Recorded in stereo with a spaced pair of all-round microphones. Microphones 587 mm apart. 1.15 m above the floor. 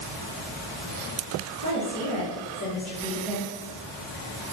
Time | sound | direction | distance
1.6 | a woman speaking | 55° left (ahead or behind) | 1.8 m